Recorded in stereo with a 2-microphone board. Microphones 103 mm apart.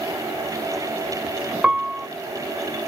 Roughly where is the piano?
Centre.